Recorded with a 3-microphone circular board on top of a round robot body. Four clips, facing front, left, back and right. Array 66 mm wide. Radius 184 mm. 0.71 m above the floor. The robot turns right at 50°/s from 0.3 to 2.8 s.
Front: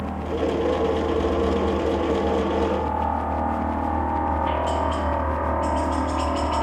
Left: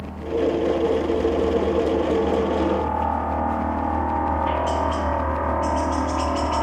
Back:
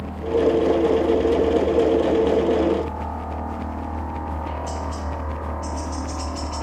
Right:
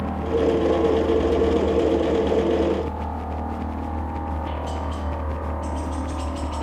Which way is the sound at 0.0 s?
60° right.